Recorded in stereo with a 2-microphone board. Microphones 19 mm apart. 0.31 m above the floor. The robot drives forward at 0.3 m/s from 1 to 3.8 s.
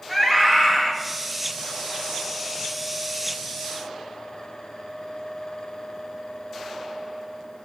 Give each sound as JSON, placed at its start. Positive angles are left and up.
{"t": 0.1, "sound": "a scream", "side_deg": 15, "distance_m": 1.1}